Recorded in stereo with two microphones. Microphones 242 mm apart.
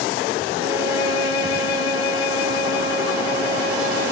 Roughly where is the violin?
Right.